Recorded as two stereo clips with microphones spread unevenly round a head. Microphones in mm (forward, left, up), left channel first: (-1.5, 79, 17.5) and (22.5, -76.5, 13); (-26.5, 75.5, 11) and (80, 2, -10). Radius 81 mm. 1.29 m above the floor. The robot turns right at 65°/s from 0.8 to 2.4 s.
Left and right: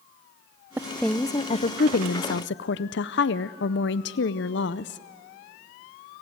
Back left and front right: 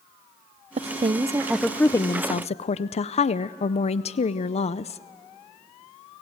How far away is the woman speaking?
About 0.5 m.